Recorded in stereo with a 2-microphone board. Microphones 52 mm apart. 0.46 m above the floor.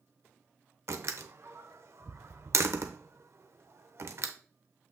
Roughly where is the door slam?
Right.